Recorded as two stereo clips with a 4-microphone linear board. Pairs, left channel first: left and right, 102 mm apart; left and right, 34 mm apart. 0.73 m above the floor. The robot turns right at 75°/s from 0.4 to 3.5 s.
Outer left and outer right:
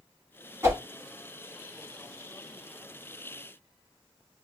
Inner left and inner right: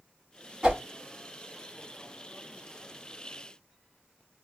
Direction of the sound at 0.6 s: 25° right (ahead or behind).